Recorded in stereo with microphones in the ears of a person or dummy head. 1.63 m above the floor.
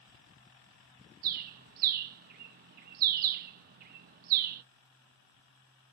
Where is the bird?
45° right (ahead or behind), 0.9 m.